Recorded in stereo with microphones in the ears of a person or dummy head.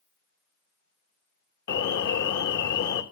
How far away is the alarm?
About 1.7 m.